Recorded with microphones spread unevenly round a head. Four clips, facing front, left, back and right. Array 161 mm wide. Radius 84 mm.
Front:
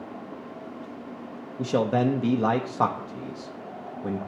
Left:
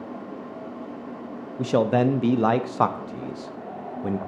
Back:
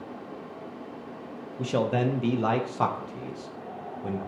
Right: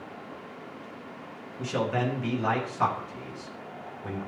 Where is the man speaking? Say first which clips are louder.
Left 8 dB, front 3 dB; 75° left, 0.6 m.